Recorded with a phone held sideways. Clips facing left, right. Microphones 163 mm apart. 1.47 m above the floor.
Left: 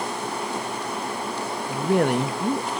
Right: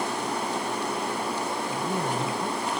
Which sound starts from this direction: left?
A woman speaking, at 1.7 s.